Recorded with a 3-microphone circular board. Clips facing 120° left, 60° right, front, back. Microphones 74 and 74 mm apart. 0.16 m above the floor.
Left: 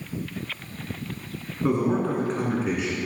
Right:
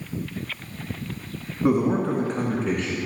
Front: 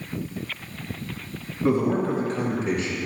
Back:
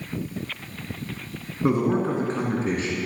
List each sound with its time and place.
1.6 s a man speaking: 130° right, 1.7 m; by 3.0 s 170° right, 2.0 m